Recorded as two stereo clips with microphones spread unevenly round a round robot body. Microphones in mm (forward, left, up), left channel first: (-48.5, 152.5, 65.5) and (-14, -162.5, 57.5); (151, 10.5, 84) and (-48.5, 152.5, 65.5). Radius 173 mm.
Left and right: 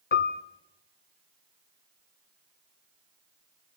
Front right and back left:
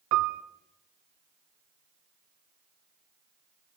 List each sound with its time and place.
0.1 s a piano: 160° left, 1.1 m